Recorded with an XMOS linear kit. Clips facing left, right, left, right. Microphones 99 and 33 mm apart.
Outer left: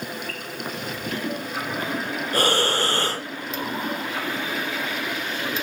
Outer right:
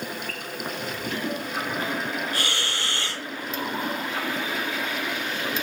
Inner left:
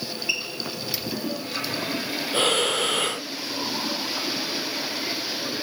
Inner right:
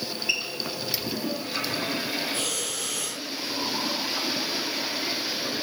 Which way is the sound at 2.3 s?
45° left (ahead or behind).